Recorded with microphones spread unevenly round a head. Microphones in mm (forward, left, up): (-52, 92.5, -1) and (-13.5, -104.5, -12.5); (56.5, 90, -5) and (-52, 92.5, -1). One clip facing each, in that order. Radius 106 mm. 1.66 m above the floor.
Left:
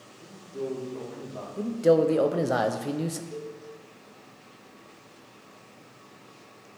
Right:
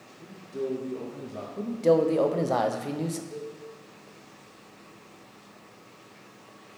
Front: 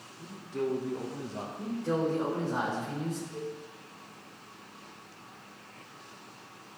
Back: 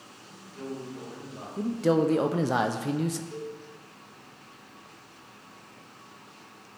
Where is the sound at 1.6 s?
Straight behind, 0.7 m.